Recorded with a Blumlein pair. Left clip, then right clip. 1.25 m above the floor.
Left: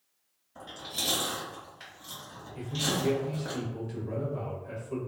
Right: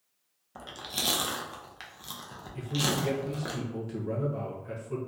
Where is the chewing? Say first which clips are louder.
Right 1 dB; 35° right, 0.8 m.